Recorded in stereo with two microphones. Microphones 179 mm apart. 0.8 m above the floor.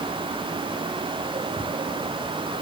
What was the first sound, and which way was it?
Only background noise.